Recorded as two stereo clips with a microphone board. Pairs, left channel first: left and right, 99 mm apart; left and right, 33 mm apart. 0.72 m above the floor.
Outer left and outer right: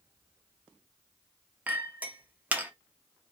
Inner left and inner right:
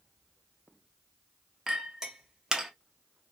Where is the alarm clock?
No alarm clock in this recording.